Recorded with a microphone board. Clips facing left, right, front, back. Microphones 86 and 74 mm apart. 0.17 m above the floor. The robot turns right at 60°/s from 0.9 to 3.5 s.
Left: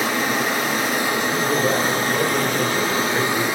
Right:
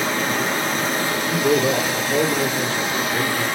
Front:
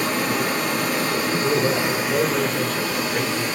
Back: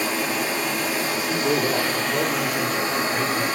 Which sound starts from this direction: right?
A man speaking, at 1.1 s.